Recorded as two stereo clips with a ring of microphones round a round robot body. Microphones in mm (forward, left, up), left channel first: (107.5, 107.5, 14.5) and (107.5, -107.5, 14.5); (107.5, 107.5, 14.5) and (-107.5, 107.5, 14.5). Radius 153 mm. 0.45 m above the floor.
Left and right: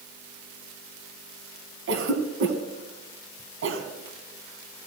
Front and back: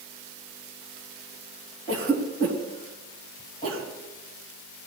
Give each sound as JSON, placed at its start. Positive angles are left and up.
{"t": 1.9, "sound": "a cough", "azimuth_deg": -70, "distance_m": 4.0}